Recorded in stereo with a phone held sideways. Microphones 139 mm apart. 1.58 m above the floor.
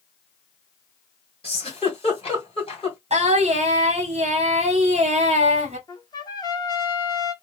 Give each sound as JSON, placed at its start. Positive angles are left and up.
{"t": 1.4, "sound": "a giggle", "side_deg": 40, "distance_m": 1.6}
{"t": 3.1, "sound": "singing", "side_deg": -50, "distance_m": 1.1}
{"t": 5.9, "sound": "a trumpet", "side_deg": 30, "distance_m": 0.7}